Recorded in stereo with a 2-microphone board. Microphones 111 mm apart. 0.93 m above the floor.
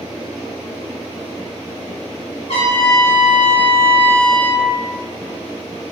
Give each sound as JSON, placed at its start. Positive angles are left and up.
{"t": 2.5, "sound": "a trumpet", "side_deg": 55, "distance_m": 1.4}